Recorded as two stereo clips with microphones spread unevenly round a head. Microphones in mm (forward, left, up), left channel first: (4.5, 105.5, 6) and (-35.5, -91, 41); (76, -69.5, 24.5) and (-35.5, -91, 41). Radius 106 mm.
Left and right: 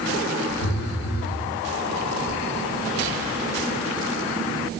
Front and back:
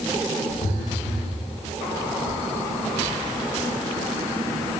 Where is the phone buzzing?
70° left, 1.3 m.